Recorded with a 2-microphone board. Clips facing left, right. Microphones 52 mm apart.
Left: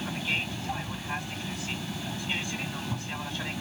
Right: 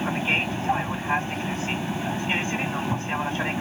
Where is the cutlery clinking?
I don't hear cutlery clinking.